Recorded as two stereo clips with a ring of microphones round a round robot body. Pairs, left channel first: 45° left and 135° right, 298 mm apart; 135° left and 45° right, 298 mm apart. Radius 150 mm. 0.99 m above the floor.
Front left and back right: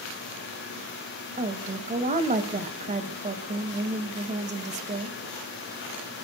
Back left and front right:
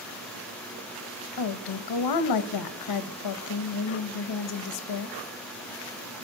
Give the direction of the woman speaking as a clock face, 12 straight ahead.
7 o'clock.